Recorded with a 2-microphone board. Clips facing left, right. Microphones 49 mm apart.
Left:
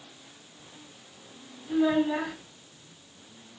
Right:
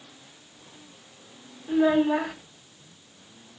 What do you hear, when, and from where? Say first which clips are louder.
1.7 s a child speaking: right 3 dB; 30° right (ahead or behind), 1.1 m